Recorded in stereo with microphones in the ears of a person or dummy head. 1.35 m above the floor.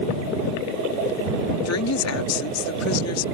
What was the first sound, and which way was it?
A woman speaking, 85° left.